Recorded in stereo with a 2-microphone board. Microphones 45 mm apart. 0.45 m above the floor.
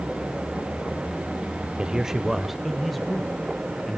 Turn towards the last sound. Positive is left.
turn(degrees=0)  # may be behind; listen again after turning